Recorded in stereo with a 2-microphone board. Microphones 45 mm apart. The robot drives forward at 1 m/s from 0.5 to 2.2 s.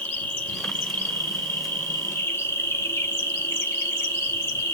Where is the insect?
35° left (ahead or behind), 1.8 m; by 4.7 s 70° left (ahead or behind), 1.1 m.